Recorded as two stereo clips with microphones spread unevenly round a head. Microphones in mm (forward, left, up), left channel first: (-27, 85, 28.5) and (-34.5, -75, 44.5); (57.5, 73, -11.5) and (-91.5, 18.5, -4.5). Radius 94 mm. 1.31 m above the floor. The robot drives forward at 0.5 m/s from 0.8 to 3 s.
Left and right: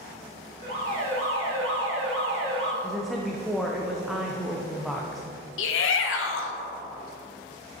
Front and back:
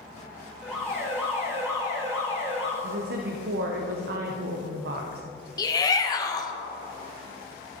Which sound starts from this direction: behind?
A woman speaking, at 2.8 s.